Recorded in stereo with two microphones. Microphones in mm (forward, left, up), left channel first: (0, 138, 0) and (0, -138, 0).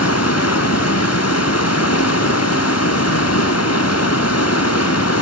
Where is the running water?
55° left (ahead or behind), 1.2 m.